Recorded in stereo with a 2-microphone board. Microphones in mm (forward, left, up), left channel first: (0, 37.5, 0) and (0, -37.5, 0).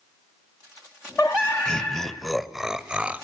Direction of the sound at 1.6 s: 10° left (ahead or behind).